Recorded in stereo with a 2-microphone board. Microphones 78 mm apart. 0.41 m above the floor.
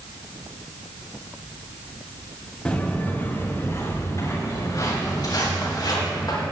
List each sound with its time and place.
2.6 s footsteps: 10° left (ahead or behind), 3 m; by 6.4 s 55° left (ahead or behind), 6 m